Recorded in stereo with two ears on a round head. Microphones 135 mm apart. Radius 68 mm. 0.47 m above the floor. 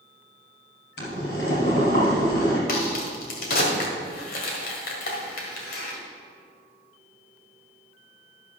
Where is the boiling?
90° left, 3.5 m.